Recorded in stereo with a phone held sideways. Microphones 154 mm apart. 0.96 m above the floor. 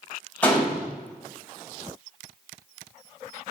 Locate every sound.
0.4 s a gunshot: 10° left (ahead or behind), 4 m